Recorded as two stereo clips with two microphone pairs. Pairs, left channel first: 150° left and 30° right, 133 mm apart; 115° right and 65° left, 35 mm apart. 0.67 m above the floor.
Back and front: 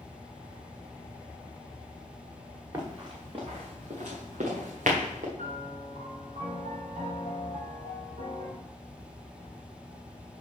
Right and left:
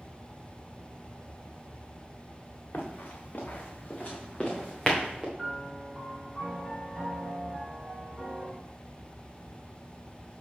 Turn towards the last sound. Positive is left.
turn(degrees=-25)